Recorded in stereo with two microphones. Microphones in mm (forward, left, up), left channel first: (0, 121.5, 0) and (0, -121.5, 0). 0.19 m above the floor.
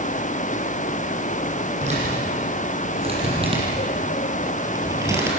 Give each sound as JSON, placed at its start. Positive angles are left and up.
{"t": 1.8, "sound": "a man speaking", "side_deg": -30, "distance_m": 7.0}